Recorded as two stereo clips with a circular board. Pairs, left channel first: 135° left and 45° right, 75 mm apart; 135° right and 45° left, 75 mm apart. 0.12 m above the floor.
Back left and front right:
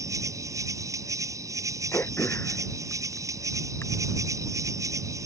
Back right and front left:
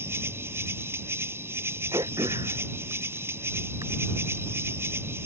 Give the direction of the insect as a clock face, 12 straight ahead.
12 o'clock.